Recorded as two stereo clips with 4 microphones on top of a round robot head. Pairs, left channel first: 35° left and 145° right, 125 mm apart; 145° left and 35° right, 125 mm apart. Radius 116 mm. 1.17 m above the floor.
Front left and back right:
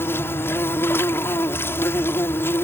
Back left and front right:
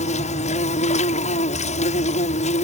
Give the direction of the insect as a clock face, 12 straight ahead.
8 o'clock.